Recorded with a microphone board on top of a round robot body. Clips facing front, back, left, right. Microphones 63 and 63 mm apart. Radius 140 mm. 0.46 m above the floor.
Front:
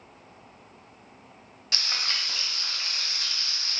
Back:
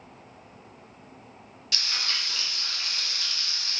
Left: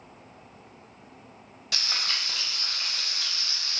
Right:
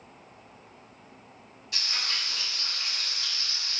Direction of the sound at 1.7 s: 60° left.